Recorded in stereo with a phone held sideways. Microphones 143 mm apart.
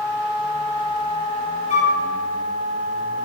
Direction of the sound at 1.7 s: 55° left (ahead or behind).